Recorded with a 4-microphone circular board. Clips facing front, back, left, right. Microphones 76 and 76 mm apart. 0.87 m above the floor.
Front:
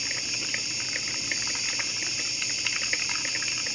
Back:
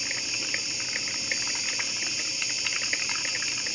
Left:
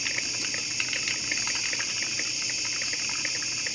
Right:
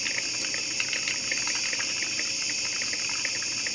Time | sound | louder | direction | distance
0.0 | an insect | even, even | 50° left | 2.5 m